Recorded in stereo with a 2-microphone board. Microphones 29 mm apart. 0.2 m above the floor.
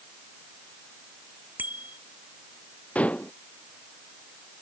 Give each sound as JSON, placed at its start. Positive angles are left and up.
{"t": 1.6, "sound": "a bicycle bell", "side_deg": -85}
{"t": 3.0, "sound": "dishes clattering", "side_deg": 50}